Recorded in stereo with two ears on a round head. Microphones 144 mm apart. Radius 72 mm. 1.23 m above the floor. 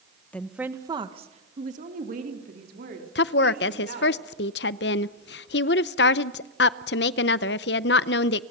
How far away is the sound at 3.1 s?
About 0.7 m.